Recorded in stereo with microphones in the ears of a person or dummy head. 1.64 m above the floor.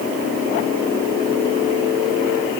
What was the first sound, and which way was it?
Only background noise.